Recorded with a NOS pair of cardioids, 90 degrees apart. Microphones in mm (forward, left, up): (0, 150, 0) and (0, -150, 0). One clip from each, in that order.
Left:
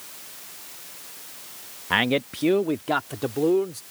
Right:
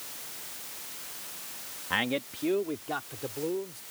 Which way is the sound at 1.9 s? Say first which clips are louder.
Left 7 dB; 40° left.